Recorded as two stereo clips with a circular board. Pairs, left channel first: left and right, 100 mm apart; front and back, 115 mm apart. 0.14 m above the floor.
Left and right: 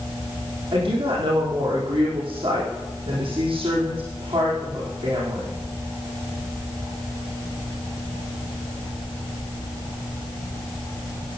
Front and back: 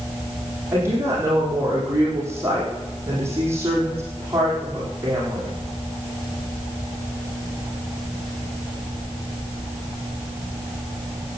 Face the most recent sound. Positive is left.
turn(degrees=-115)